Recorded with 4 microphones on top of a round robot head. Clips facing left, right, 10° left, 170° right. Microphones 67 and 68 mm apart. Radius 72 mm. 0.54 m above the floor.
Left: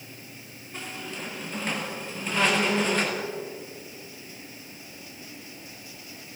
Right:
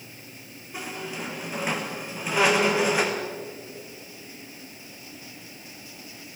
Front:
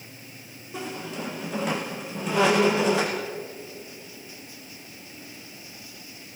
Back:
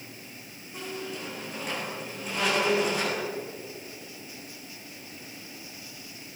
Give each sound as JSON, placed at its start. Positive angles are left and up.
{"t": 0.7, "sound": "a squeak", "azimuth_deg": -10, "distance_m": 4.0}